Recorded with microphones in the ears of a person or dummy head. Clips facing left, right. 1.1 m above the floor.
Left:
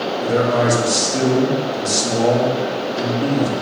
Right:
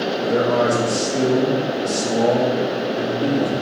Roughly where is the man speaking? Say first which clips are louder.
Left 1 dB; left.